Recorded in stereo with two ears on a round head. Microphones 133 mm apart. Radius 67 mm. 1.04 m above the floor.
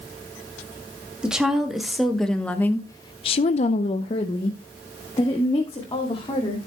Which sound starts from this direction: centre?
A woman speaking, at 1.2 s.